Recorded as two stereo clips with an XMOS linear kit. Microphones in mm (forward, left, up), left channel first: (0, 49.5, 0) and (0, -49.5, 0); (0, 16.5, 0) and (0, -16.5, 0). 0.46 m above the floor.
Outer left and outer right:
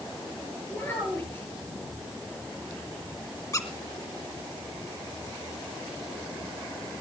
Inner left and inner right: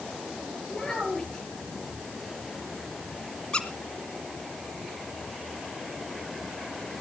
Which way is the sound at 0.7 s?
25° left (ahead or behind).